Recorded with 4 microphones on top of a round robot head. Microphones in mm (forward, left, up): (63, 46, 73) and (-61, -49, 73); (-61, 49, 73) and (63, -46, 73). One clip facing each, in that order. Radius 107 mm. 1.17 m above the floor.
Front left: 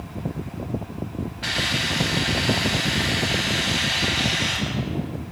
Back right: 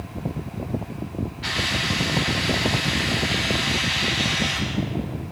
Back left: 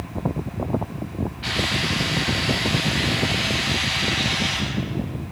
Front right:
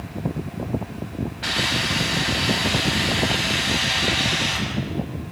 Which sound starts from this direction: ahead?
A hiss, at 1.4 s.